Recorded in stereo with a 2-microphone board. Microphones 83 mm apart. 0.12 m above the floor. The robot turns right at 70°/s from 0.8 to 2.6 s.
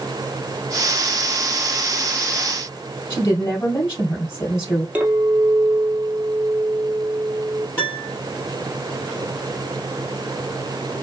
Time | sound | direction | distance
3.1 | a woman speaking | 30° left (ahead or behind) | 3 m
5.0 | a clink | 20° right (ahead or behind) | 1.9 m
7.8 | a piano | 25° left (ahead or behind) | 2.5 m